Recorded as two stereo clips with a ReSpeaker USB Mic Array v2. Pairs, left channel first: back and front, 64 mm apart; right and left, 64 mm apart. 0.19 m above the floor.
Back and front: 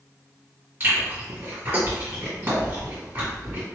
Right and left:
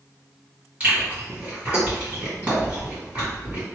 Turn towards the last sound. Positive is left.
turn(degrees=35)